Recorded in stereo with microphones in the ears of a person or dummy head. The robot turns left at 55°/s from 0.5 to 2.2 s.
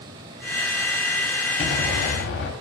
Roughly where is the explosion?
Behind left.